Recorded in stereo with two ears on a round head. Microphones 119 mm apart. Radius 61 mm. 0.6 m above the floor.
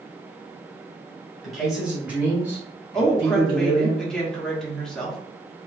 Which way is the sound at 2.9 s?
5° left (ahead or behind).